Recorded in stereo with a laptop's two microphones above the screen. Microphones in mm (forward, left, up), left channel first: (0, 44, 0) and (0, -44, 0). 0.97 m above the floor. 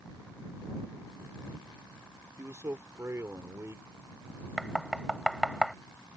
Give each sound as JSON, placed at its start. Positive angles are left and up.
{"t": 2.4, "sound": "a man speaking", "side_deg": -30}
{"t": 4.6, "sound": "knocking", "side_deg": 0}